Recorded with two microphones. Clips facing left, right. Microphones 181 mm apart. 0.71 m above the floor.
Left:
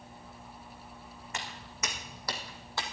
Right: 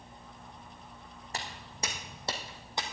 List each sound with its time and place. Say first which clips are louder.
1.3 s footsteps: right 2 dB; 35° right (ahead or behind), 2.5 m; by 2.8 s 20° right (ahead or behind), 1.6 m